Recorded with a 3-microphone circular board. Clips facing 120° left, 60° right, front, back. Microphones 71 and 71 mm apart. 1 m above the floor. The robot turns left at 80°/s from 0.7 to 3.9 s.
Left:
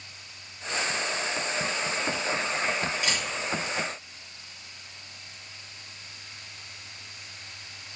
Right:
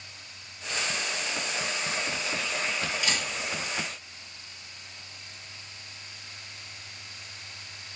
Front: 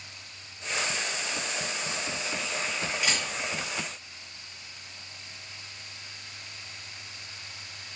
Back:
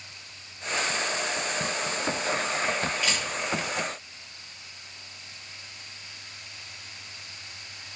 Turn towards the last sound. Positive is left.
turn(degrees=5)